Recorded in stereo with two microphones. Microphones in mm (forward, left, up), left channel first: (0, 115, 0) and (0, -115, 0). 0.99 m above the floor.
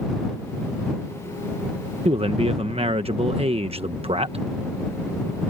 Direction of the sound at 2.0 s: 25° right (ahead or behind).